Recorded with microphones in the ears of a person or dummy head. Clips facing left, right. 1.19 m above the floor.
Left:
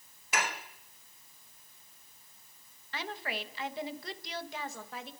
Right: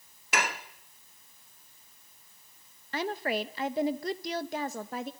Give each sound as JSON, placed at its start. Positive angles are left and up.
{"t": 0.3, "sound": "dishes clattering", "side_deg": -45, "distance_m": 1.1}
{"t": 2.9, "sound": "a woman speaking", "side_deg": -40, "distance_m": 1.2}